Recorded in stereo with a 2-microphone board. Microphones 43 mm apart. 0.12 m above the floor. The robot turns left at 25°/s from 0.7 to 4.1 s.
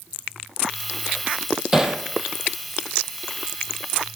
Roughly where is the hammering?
Centre.